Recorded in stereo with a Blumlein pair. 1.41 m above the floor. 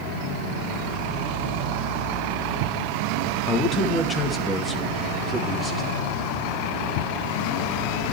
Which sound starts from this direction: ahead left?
A man speaking, at 3.5 s.